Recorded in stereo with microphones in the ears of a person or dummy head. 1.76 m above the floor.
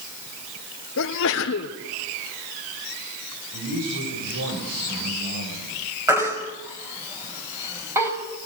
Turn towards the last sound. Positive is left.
turn(degrees=-15)  # may be behind; listen again after turning